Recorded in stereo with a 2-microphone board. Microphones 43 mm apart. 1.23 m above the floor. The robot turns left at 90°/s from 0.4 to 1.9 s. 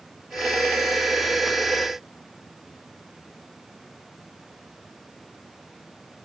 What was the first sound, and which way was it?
Only background noise.